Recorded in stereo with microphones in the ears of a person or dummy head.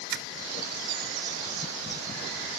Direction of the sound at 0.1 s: 60° right (ahead or behind).